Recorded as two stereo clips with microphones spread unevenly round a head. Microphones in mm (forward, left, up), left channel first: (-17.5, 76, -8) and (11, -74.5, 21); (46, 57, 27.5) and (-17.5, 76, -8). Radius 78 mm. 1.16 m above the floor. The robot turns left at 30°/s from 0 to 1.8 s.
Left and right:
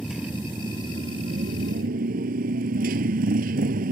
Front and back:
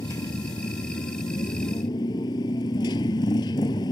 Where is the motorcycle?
10° left; by 3.9 s 45° right.